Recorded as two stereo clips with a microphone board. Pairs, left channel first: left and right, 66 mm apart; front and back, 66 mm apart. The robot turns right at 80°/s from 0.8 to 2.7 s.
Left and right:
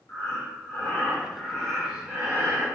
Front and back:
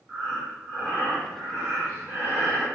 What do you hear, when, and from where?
0.1 s breathing: 105° left, 1.6 m; by 2.7 s 105° right, 1.6 m